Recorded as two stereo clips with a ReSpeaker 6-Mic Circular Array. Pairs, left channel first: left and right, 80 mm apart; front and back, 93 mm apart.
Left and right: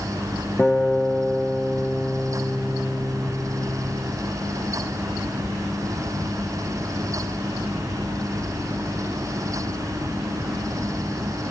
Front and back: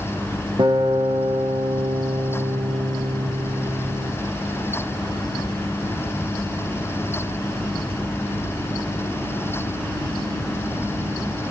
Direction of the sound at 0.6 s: 150° left.